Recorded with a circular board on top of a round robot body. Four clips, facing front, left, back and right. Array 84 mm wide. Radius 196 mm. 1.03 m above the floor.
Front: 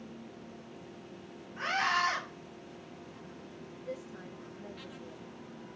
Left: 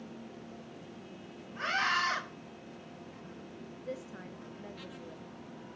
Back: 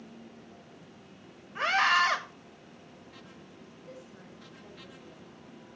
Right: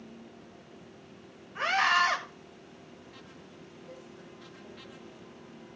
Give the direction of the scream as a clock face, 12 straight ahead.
5 o'clock.